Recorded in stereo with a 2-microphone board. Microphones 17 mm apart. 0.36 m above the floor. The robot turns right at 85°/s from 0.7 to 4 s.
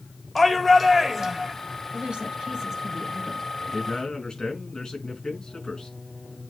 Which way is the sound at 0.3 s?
165° left.